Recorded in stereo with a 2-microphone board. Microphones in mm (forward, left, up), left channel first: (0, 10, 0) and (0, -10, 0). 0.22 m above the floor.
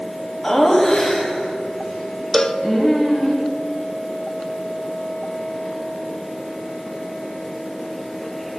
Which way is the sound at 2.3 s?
25° left (ahead or behind).